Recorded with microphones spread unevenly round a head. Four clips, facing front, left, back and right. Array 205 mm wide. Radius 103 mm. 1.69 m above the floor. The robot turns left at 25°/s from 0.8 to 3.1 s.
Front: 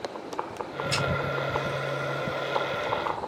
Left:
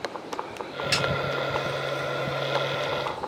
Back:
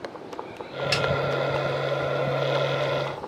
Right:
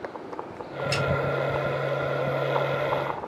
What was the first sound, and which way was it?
A snare drum, 160° right.